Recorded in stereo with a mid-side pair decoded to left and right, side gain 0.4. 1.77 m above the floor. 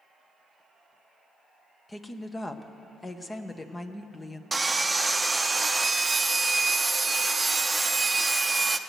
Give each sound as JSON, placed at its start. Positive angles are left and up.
{"t": 1.9, "sound": "a woman speaking", "azimuth_deg": 25, "distance_m": 1.1}
{"t": 4.5, "sound": "sawing", "azimuth_deg": -20, "distance_m": 0.8}